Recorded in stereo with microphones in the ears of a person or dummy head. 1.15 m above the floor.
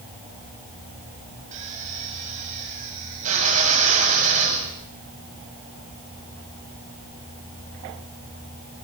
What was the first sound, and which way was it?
A drill, 40° right (ahead or behind).